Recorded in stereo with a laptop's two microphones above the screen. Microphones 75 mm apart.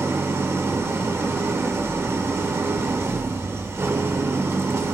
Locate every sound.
0.0 s an engine running: 35° right (ahead or behind), 0.8 m